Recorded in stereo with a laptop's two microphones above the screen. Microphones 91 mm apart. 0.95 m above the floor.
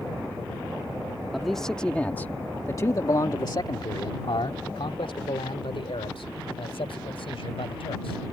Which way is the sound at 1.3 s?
Centre (ahead or behind).